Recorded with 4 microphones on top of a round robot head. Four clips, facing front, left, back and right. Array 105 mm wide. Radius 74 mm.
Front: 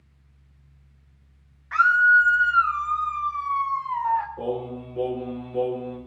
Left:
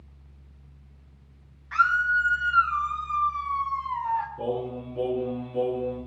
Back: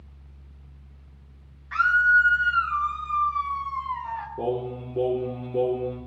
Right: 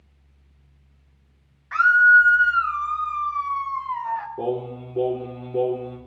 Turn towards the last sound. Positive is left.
turn(degrees=-130)